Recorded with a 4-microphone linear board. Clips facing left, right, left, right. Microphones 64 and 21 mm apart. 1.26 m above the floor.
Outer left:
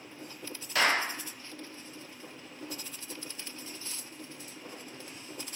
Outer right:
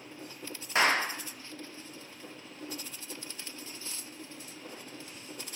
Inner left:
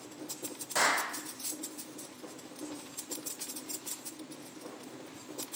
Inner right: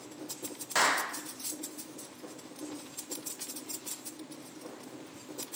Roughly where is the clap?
Right.